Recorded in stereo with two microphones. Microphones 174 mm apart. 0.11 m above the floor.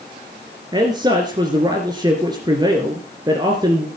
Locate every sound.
0.7 s a man speaking: 25° right (ahead or behind), 2 m